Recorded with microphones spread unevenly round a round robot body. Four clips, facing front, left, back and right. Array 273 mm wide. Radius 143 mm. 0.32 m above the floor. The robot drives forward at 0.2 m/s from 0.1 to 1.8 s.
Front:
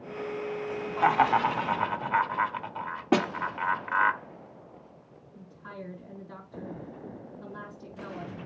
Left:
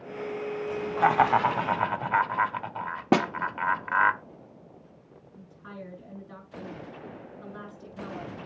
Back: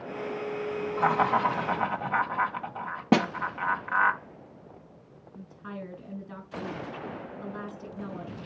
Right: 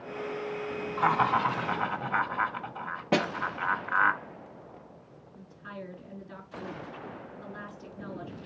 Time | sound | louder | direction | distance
1.0 | laughter | left 4 dB, front 2 dB | 105° left | 1.9 m
3.1 | a snare drum | left 4 dB, back 2 dB | 125° left | 1.3 m
5.3 | a woman speaking | right 1 dB, back 3 dB | 170° left | 4.5 m